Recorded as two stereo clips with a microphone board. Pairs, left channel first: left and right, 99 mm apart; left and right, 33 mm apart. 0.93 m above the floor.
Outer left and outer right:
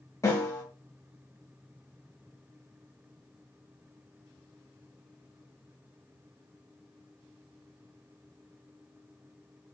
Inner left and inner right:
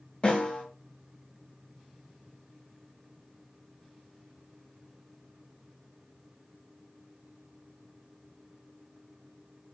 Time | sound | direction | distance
0.2 | a snare drum | 35° left (ahead or behind) | 1.7 m